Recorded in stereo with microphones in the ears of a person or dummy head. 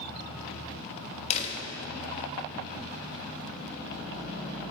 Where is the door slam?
35° left (ahead or behind), 1.2 m.